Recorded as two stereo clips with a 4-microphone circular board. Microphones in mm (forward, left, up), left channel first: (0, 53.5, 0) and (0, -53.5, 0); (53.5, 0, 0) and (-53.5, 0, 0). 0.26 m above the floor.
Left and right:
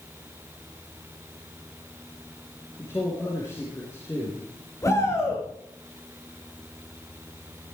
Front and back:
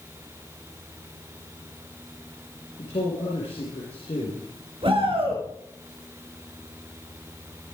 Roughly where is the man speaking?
Ahead left.